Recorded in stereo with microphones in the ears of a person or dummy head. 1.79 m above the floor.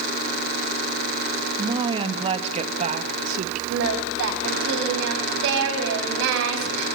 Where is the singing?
65° right (ahead or behind), 4.5 m.